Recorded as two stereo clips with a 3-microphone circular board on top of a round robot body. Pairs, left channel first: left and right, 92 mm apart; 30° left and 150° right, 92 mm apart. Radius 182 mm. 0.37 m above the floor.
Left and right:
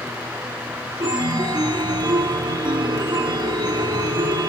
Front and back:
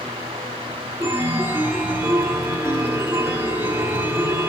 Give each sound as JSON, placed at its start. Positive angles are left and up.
{"t": 1.0, "sound": "a chime", "azimuth_deg": -90, "distance_m": 1.0}